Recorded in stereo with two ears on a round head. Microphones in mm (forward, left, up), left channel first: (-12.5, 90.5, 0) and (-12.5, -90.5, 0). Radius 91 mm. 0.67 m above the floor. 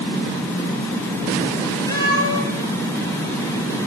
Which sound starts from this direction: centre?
A cat meowing, at 1.9 s.